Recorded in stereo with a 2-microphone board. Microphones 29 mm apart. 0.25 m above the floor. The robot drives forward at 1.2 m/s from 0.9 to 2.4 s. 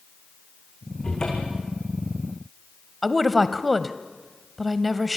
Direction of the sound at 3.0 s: Centre (ahead or behind).